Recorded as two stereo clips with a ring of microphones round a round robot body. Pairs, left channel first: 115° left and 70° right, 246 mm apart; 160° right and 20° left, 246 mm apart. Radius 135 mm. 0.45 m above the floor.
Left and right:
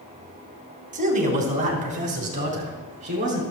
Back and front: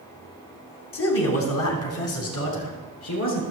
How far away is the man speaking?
About 2.5 m.